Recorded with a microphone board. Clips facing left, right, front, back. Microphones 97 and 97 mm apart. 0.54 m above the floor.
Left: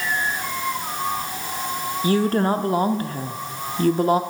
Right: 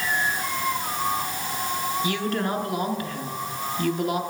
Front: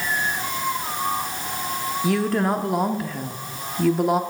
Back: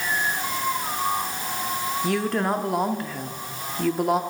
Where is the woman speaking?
90° left, 0.7 m.